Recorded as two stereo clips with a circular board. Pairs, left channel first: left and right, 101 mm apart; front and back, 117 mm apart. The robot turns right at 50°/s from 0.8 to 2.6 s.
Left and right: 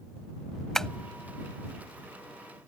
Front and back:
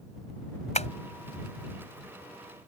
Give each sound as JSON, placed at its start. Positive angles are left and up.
{"t": 0.8, "sound": "tapping", "azimuth_deg": 5}